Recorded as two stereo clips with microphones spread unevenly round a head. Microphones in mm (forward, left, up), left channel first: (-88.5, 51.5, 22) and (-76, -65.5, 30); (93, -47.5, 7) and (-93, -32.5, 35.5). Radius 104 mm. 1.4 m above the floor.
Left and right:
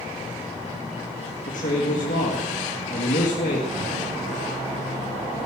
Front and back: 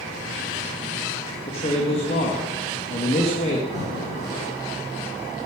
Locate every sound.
1.5 s a man speaking: 60° left, 2.0 m
3.7 s breathing: 75° right, 7.5 m